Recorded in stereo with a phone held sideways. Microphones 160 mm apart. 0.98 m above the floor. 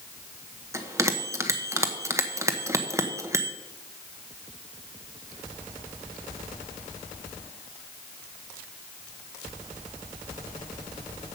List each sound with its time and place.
0.7 s a bell: 20° right (ahead or behind), 1.0 m